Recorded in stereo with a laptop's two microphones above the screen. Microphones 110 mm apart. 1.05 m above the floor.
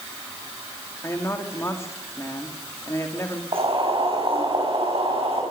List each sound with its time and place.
1.0 s a woman speaking: 25° left (ahead or behind), 2.5 m
3.5 s boiling: 55° right (ahead or behind), 8 m